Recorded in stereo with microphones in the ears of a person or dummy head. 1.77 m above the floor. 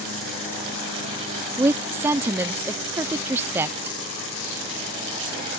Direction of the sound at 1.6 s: 10° right (ahead or behind).